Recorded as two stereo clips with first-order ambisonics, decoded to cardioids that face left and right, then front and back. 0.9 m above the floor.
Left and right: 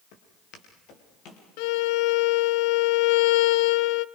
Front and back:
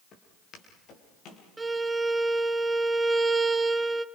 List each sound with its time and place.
0.1 s footsteps: 60° left, 5.5 m; by 1.5 s 45° left, 6 m
1.6 s a violin: 100° left, 0.6 m